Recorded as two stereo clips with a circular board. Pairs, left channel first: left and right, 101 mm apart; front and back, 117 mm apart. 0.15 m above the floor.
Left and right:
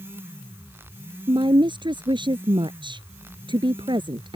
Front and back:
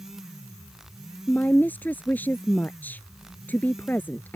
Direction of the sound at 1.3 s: 70° right.